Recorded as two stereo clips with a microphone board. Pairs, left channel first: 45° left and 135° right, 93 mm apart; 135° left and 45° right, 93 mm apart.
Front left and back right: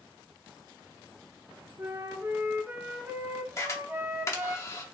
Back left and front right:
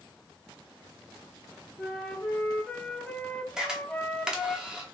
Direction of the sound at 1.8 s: 160° right.